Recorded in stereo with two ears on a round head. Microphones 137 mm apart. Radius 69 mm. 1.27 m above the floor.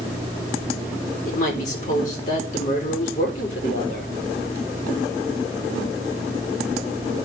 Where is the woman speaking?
50° left (ahead or behind), 4 m.